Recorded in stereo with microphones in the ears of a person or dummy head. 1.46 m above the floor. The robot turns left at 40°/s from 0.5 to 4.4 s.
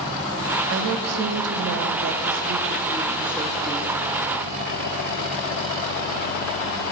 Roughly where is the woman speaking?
Right.